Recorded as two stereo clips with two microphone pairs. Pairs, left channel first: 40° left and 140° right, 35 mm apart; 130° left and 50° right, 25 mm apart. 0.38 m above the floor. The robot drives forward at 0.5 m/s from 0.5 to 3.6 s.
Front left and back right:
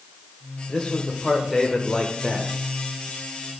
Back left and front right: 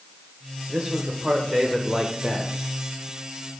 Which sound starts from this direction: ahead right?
A man speaking, at 0.7 s.